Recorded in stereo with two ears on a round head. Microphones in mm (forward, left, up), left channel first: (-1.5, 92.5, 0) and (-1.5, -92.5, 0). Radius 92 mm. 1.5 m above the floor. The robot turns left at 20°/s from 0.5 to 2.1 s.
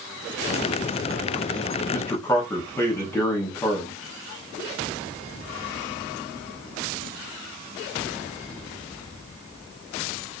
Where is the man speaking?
15° left (ahead or behind), 0.8 m; by 4.0 s 10° left (ahead or behind), 0.8 m.